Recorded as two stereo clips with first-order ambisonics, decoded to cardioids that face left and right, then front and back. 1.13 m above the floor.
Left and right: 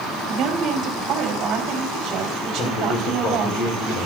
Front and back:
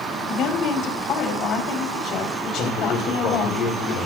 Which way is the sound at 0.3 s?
40° right.